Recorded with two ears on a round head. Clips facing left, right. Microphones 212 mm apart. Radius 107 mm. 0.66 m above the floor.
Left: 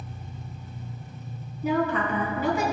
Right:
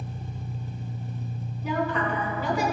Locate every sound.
0.0 s an engine running: 25° right (ahead or behind), 0.8 m
1.6 s a woman speaking: 40° left (ahead or behind), 5 m